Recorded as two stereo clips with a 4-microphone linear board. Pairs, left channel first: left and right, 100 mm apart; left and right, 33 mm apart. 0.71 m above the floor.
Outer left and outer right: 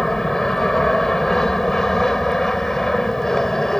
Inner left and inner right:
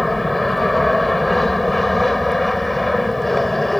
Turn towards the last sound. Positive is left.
turn(degrees=5)  # may be behind; listen again after turning